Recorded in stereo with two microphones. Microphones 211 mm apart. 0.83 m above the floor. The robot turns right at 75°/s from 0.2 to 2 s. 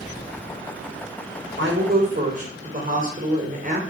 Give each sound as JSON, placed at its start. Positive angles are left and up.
{"t": 1.6, "sound": "a woman speaking", "azimuth_deg": -70, "distance_m": 3.5}